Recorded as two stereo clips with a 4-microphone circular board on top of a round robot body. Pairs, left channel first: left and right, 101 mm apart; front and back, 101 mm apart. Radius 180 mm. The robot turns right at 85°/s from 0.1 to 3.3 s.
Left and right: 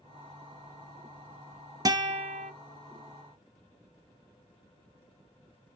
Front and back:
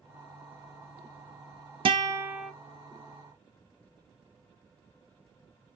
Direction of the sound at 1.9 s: 145° right.